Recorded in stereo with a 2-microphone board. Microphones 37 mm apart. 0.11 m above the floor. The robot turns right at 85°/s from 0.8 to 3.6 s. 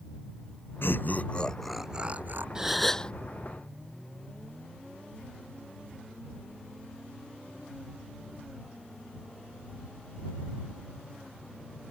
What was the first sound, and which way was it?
Laughter, 105° left.